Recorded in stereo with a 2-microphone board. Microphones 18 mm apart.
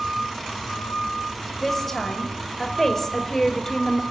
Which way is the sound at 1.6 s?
15° left (ahead or behind).